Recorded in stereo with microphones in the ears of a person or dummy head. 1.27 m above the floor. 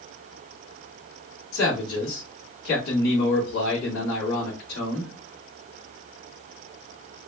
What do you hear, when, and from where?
1.5 s a man speaking: 75° left (ahead or behind), 2 m